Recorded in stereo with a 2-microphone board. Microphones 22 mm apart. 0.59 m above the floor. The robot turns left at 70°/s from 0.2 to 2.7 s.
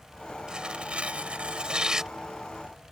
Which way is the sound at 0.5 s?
45° right.